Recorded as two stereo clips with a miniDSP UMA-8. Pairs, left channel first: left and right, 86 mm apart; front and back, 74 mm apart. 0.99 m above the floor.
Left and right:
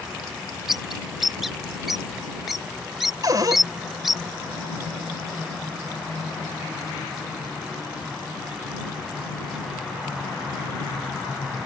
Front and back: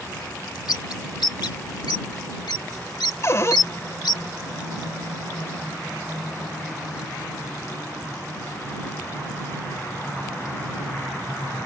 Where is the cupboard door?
50° right.